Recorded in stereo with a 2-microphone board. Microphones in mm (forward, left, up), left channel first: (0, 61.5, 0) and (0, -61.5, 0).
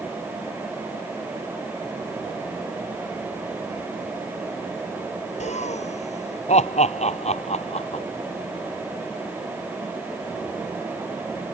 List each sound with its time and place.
5.4 s laughter: 65° left (ahead or behind); by 8.0 s 55° left (ahead or behind)